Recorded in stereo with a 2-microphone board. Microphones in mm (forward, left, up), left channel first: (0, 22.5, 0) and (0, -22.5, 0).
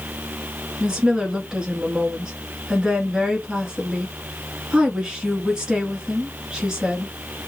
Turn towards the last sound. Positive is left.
turn(degrees=-15)  # may be behind; listen again after turning